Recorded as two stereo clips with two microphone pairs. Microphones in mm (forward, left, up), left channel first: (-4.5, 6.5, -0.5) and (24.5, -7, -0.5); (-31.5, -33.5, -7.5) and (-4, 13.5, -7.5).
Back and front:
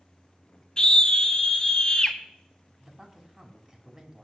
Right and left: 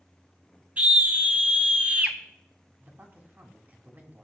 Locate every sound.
0.8 s a scream: 105° left, 1.7 m
2.8 s a man speaking: 35° left, 2 m